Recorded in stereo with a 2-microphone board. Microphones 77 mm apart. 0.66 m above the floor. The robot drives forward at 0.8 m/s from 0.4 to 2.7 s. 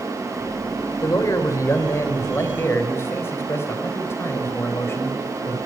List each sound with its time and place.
1.0 s a man speaking: 45° left (ahead or behind), 3 m; by 5.6 s 35° left (ahead or behind), 4 m